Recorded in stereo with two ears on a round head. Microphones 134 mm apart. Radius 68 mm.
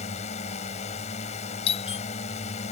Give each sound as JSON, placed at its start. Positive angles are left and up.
{"t": 0.0, "sound": "a drone", "side_deg": 50}
{"t": 1.7, "sound": "a doorbell", "side_deg": 45}